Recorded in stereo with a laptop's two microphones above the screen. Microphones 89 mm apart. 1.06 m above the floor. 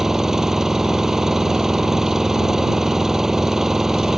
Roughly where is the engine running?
Centre.